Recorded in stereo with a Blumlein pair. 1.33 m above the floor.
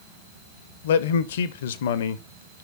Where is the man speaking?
55° left, 0.7 m.